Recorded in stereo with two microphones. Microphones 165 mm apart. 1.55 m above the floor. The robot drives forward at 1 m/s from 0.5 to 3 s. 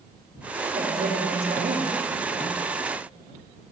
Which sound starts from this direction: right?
A woman speaking, at 0.6 s.